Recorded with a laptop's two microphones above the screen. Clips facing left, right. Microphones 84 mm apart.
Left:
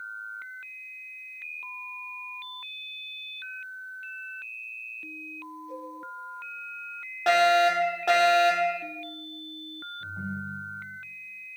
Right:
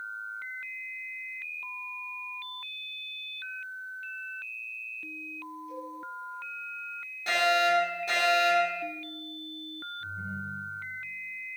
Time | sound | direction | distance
5.7 | a cowbell | 30° left (ahead or behind) | 8.5 m
7.3 | a fire alarm | 65° left (ahead or behind) | 4.5 m
10.0 | a ringtone | 70° left (ahead or behind) | 5.5 m